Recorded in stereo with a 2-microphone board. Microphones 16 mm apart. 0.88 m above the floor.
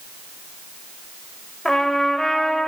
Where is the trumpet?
45° left (ahead or behind), 0.9 m.